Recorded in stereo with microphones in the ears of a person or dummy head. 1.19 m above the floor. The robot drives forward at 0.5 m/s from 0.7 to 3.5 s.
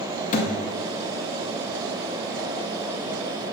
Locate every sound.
0.3 s a thud: 40° left (ahead or behind), 0.8 m